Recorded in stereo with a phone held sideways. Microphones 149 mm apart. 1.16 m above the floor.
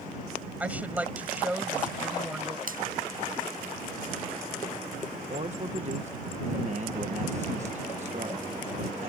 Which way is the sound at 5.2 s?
50° right (ahead or behind).